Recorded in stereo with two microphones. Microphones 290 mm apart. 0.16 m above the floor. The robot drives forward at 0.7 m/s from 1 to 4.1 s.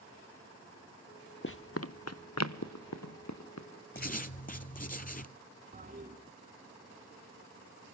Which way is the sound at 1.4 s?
45° left (ahead or behind).